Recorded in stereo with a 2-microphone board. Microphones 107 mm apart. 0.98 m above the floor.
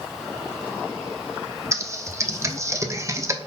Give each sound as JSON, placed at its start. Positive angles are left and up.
{"t": 1.7, "sound": "typing on a keyboard", "side_deg": -25, "distance_m": 0.6}